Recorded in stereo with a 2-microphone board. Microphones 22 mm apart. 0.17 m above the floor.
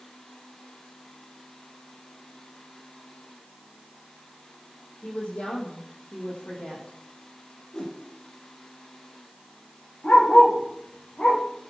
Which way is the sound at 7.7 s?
45° left (ahead or behind).